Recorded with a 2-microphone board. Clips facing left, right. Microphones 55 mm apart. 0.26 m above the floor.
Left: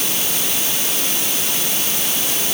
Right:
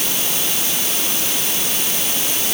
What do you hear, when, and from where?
Only background noise.